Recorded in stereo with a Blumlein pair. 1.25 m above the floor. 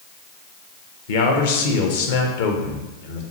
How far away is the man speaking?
About 0.8 m.